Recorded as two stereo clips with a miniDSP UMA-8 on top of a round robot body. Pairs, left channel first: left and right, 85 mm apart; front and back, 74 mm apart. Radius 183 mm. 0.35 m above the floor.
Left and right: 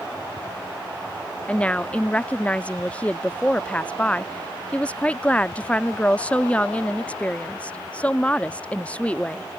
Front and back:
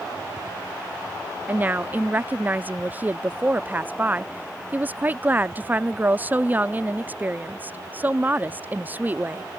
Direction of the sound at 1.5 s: 145° left.